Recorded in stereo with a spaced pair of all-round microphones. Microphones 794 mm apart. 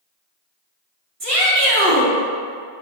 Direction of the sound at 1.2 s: 45° right (ahead or behind).